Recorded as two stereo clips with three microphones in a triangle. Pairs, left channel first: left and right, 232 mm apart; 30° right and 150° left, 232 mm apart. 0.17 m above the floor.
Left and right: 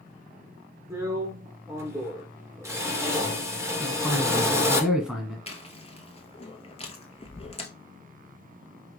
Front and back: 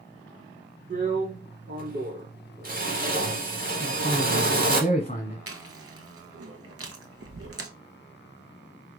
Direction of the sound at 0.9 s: 165° right.